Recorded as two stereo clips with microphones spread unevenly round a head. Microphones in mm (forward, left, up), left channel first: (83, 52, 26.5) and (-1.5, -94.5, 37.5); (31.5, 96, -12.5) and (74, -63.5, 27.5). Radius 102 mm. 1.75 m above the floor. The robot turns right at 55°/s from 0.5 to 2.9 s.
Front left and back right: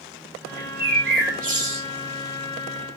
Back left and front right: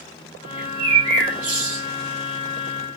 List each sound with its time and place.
0.6 s a bird: 140° right, 2 m; by 1.8 s 70° right, 2 m